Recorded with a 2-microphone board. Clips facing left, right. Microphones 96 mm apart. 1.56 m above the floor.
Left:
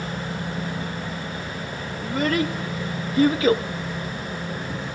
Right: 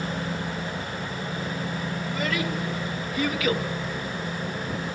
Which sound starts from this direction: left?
A child speaking, at 2.0 s.